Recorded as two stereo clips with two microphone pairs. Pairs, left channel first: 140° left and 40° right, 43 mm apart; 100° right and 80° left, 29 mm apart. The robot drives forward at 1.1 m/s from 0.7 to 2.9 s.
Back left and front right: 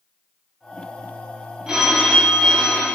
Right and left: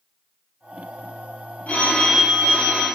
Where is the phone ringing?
110° right, 1.8 m; by 2.9 s 140° right, 2.5 m.